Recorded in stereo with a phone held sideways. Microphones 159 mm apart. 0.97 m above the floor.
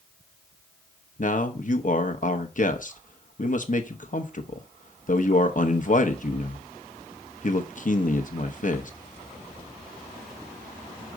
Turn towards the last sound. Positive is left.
turn(degrees=55)  # may be behind; listen again after turning